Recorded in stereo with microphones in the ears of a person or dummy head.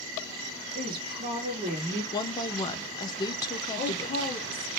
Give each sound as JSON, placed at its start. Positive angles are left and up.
{"t": 0.8, "sound": "a woman speaking", "side_deg": -30, "distance_m": 2.0}
{"t": 2.1, "sound": "a woman speaking", "side_deg": 20, "distance_m": 0.9}
{"t": 3.8, "sound": "a woman speaking", "side_deg": 55, "distance_m": 3.0}